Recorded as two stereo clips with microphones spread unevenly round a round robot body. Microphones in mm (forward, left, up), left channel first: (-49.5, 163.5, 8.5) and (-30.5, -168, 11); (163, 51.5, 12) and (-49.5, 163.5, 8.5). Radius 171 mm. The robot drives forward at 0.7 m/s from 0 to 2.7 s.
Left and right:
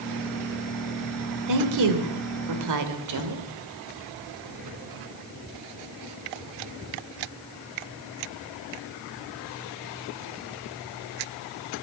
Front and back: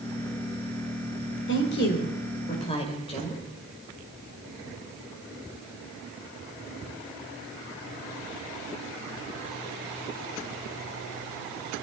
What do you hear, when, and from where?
1.5 s a woman speaking: 65° right, 2 m; by 3.4 s 95° right, 1.9 m